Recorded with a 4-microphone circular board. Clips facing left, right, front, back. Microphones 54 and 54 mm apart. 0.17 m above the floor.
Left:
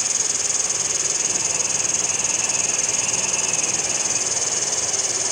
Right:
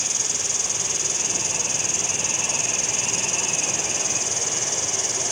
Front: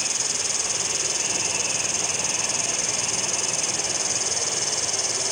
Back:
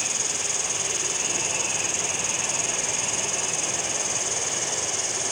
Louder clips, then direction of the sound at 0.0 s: Left 2 dB, even; 35° right.